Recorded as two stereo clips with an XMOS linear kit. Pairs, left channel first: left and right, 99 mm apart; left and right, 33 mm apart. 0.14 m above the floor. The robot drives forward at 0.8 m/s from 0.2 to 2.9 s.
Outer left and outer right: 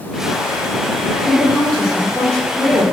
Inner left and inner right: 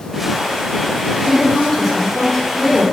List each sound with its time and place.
1.2 s a woman speaking: centre (ahead or behind), 5 m